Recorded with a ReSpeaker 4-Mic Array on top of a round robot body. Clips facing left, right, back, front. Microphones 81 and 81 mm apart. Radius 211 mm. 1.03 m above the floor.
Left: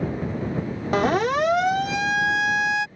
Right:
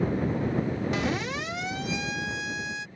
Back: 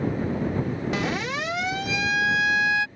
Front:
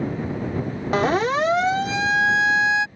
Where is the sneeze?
I don't hear a sneeze.